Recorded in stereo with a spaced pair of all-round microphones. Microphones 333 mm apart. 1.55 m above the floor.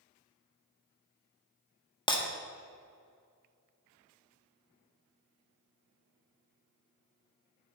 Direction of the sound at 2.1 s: 15° left (ahead or behind).